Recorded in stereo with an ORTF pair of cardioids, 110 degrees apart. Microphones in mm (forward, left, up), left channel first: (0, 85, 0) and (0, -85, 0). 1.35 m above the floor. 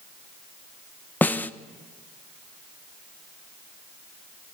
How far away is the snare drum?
About 1.2 m.